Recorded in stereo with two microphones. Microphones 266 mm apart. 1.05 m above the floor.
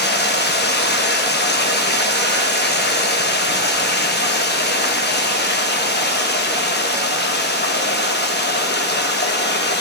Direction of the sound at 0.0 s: 40° left (ahead or behind).